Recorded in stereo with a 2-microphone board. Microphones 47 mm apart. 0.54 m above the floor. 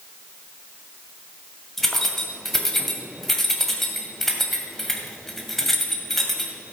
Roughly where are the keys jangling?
Centre.